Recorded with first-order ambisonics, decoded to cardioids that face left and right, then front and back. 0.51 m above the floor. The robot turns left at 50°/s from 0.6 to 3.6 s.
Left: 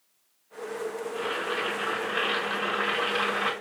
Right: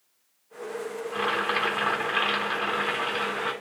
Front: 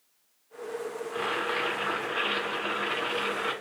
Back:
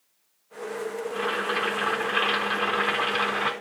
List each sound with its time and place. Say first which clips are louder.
1.1 s boiling: right 6 dB, back 2 dB; 80° right, 4.5 m; by 3.5 s 160° left, 4.5 m